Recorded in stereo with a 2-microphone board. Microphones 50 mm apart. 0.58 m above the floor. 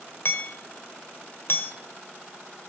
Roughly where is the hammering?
Left.